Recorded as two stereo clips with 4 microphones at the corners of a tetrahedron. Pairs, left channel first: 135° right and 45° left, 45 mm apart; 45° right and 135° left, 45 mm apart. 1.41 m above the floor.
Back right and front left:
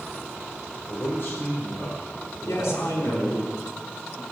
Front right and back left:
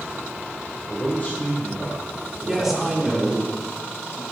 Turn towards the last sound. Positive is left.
turn(degrees=-145)